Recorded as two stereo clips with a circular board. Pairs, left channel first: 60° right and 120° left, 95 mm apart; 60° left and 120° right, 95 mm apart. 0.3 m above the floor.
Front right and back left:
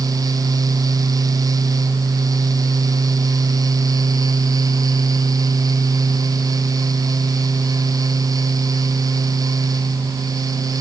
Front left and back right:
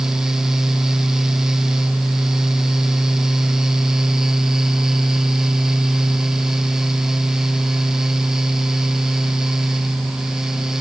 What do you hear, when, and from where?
Only background noise.